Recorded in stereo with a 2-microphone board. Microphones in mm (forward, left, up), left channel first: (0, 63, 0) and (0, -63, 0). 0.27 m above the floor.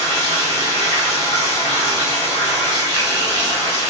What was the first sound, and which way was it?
Running water, 35° right (ahead or behind).